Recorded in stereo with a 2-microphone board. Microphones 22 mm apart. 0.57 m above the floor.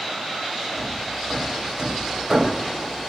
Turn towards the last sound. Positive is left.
turn(degrees=-30)  # may be behind; listen again after turning